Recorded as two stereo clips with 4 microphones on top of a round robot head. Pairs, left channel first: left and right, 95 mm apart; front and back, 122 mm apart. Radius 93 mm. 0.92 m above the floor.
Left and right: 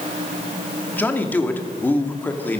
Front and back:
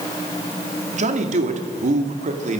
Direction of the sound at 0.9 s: 160° left.